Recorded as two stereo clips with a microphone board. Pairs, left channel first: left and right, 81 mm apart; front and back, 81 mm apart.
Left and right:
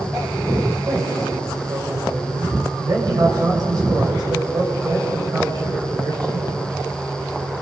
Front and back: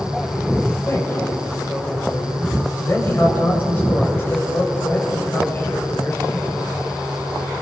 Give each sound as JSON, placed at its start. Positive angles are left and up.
{"t": 0.9, "sound": "a man speaking", "azimuth_deg": -60, "distance_m": 6.0}